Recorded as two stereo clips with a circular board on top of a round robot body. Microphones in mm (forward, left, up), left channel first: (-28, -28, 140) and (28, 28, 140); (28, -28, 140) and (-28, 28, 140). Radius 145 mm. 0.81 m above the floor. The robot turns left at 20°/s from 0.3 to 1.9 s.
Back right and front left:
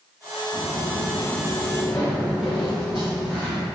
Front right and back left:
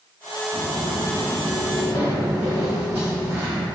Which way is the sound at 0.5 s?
130° right.